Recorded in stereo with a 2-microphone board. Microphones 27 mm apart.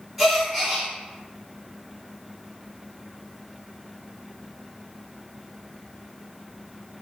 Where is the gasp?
5° right (ahead or behind), 1.7 m.